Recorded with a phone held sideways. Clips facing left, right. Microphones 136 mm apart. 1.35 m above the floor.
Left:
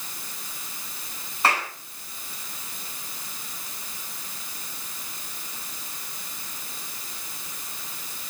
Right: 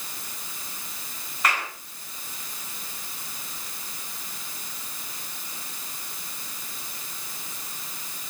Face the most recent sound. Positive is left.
turn(degrees=35)  # may be behind; listen again after turning